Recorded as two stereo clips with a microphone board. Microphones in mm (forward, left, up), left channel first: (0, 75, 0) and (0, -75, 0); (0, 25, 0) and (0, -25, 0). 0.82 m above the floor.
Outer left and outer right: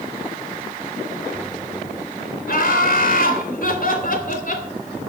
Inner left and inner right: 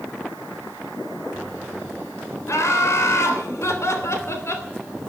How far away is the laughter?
About 3.5 m.